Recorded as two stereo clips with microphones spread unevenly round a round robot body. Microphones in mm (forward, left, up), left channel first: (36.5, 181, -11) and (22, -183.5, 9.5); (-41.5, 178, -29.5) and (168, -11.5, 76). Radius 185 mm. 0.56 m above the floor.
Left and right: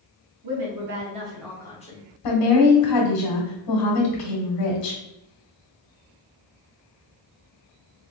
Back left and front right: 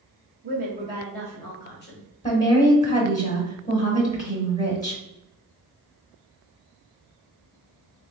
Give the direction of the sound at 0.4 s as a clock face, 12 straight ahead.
4 o'clock.